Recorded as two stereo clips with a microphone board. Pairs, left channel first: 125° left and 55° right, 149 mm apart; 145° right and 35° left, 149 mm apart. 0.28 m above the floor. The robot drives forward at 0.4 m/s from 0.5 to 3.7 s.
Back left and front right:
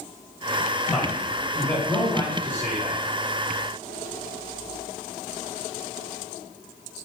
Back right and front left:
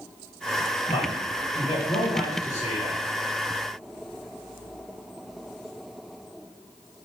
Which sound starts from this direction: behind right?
A man speaking, at 0.9 s.